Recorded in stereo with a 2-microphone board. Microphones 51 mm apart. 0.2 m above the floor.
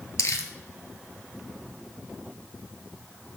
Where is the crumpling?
85° left, 0.6 m.